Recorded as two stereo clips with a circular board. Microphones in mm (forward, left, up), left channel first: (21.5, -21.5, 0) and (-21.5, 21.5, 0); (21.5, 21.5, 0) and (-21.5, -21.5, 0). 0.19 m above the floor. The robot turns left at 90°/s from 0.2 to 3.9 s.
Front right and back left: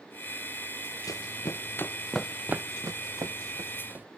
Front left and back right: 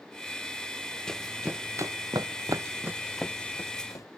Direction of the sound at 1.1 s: 30° right.